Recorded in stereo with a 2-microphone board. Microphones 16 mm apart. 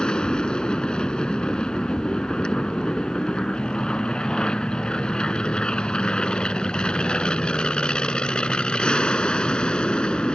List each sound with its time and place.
0.0 s an aircraft: 55° left (ahead or behind); by 10.4 s 65° left (ahead or behind)